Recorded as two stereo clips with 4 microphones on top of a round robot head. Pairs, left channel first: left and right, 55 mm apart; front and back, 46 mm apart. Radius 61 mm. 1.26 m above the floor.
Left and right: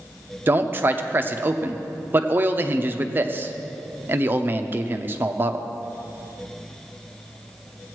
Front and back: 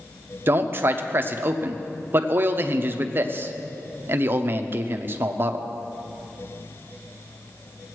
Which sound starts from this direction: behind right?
A man speaking, at 0.5 s.